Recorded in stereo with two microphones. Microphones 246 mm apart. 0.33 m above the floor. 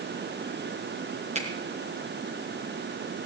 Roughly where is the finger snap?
Right.